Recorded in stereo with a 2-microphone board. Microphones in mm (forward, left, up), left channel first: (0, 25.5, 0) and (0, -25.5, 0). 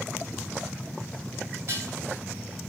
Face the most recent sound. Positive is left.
turn(degrees=-55)  # may be behind; listen again after turning